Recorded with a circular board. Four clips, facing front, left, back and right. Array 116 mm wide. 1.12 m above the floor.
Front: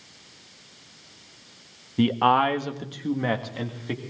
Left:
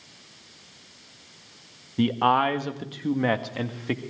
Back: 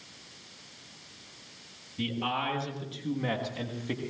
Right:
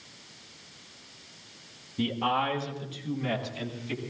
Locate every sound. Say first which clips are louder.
2.0 s a man speaking: left 7 dB, front 12 dB; 30° left, 1.5 m; by 4.0 s 80° left, 2 m